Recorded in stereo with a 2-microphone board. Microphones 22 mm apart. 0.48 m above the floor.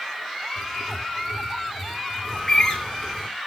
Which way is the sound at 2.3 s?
15° left (ahead or behind).